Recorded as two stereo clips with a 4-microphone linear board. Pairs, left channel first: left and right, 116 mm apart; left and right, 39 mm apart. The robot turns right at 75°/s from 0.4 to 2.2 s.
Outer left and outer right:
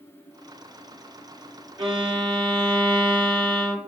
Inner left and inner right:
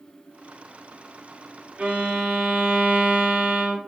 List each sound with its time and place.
1.8 s a violin: 95° right, 1.4 m; by 3.8 s 65° right, 1.4 m